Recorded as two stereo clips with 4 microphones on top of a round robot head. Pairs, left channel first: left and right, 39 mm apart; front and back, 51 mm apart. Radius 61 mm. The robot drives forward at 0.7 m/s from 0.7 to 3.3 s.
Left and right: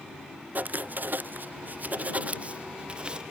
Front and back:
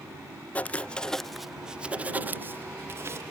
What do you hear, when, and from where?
0.6 s writing: 60° right; by 3.2 s 155° right